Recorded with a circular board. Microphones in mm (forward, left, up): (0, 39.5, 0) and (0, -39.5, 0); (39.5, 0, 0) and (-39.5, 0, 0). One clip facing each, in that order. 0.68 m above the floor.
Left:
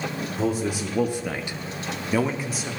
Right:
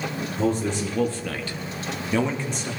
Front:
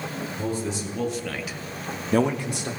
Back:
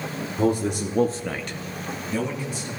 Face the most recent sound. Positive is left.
turn(degrees=5)